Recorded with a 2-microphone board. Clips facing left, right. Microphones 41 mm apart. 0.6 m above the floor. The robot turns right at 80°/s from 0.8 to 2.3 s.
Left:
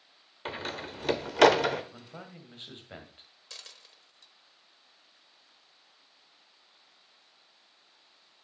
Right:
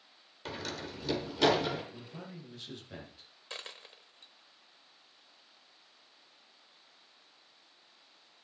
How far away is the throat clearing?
No throat clearing in this recording.